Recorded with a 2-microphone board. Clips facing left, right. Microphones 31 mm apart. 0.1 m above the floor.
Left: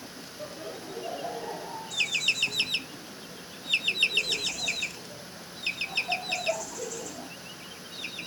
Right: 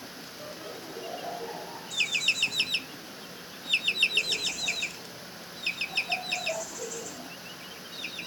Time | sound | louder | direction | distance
0.4 | laughter | left 3 dB | 50° left (ahead or behind) | 5 m